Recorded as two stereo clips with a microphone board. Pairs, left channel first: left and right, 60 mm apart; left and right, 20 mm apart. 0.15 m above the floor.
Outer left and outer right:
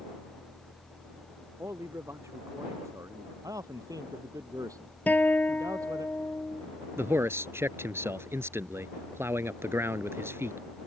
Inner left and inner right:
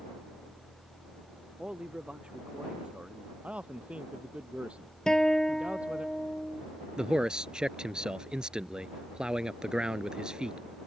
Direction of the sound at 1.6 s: 55° right (ahead or behind).